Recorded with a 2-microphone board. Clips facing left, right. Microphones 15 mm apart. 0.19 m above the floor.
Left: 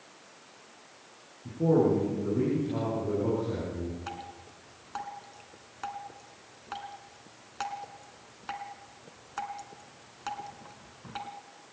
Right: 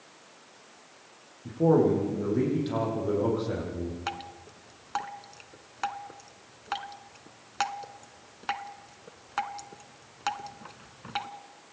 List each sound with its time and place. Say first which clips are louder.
1.4 s a man speaking: right 2 dB; 70° right (ahead or behind), 8.5 m
4.1 s dripping: right 4 dB; 40° right (ahead or behind), 0.9 m